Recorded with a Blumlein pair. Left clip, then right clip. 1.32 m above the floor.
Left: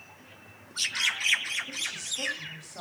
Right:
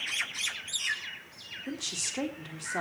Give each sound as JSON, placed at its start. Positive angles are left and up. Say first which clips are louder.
{"t": 1.7, "sound": "a woman speaking", "louder": "left 2 dB", "azimuth_deg": -40, "distance_m": 3.5}